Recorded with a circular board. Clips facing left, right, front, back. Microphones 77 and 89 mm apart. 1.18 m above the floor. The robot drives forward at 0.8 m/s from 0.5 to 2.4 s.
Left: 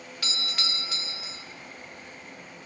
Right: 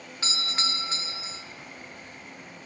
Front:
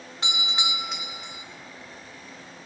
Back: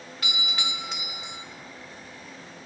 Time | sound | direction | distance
0.2 | a doorbell | 45° right | 0.8 m